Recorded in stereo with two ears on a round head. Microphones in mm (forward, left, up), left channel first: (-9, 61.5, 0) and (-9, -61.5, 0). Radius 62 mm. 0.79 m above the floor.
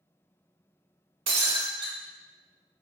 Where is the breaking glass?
40° right (ahead or behind), 1.2 m.